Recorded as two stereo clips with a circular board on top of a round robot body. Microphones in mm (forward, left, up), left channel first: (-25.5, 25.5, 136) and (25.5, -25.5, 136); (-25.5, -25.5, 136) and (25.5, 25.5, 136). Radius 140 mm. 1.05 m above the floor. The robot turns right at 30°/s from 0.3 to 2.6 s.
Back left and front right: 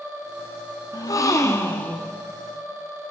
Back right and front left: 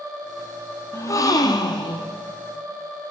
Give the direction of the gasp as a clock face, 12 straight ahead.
6 o'clock.